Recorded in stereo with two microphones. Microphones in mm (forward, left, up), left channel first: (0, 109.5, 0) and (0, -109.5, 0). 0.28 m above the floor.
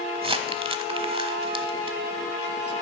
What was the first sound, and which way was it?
Crumpling, 25° right (ahead or behind).